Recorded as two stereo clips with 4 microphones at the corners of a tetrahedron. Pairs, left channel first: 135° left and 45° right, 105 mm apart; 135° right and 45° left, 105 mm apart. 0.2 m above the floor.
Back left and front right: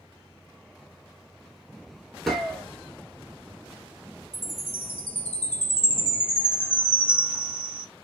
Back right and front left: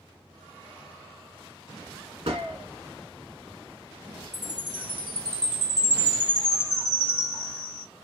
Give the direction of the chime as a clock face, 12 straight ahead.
10 o'clock.